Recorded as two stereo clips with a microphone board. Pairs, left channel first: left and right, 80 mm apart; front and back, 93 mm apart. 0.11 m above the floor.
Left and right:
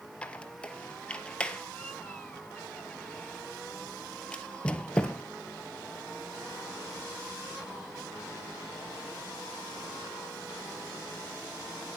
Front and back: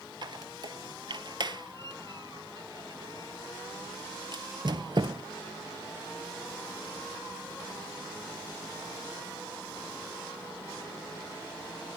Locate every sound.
0.2 s a squeak: 165° left, 1.4 m